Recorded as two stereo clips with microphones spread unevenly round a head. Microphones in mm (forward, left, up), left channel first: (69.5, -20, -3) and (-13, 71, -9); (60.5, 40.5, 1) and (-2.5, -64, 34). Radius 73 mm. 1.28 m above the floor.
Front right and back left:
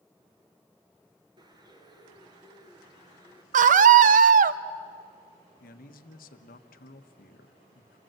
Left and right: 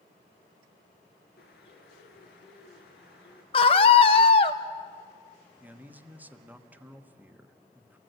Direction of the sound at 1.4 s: 80° left.